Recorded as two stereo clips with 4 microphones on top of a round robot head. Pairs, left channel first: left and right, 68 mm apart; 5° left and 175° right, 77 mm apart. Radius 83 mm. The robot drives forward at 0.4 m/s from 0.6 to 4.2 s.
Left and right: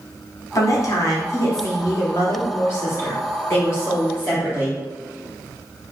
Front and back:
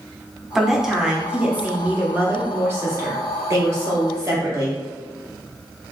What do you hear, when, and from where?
0.6 s a woman speaking: 100° left, 1.4 m; by 4.8 s 145° left, 2 m